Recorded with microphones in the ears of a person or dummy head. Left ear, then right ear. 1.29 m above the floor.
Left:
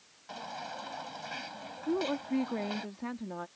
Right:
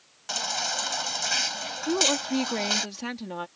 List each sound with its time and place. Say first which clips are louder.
0.3 s a baby crying: right 12 dB; 65° right (ahead or behind)
1.9 s a woman speaking: right 8 dB; 80° right